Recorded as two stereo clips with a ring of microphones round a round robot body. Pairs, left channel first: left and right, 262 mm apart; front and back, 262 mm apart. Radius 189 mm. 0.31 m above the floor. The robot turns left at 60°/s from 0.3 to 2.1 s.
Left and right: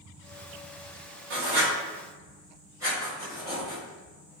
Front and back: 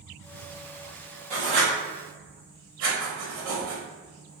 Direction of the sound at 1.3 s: 120° right.